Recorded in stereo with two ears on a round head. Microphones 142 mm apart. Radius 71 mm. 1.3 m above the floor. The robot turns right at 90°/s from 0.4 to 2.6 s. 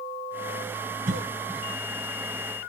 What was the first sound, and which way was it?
A cough, 50° right (ahead or behind).